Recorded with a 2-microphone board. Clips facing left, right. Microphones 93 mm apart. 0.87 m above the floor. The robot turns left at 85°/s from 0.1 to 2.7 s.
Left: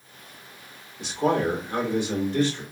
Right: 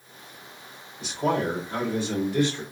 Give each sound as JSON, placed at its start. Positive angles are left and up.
{"t": 1.0, "sound": "a man speaking", "azimuth_deg": 105, "distance_m": 2.0}